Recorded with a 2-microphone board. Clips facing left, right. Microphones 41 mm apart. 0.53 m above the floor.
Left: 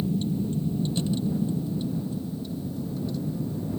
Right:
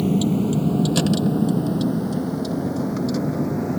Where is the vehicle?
75° right (ahead or behind); by 3.8 s 80° right.